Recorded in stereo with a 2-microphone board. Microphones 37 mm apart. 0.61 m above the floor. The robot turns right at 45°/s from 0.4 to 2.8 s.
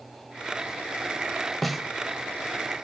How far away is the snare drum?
About 1.0 m.